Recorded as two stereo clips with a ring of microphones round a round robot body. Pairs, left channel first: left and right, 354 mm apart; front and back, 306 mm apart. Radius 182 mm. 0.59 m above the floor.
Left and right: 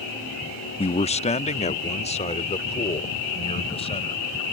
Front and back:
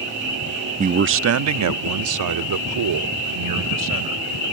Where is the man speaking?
145° left; by 4.2 s 165° left.